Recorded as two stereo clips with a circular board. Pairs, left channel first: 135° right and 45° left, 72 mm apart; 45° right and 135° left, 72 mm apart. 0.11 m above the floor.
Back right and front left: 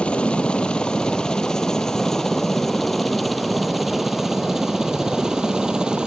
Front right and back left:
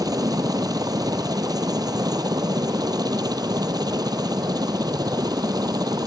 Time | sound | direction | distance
0.0 | a helicopter | 150° left | ?